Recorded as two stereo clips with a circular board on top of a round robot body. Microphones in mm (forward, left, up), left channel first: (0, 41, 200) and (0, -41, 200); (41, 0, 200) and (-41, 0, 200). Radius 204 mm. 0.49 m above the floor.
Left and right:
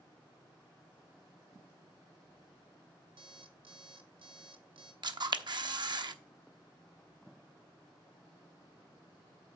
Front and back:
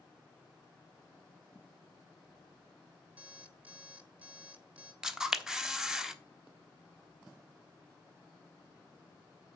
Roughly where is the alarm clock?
Right.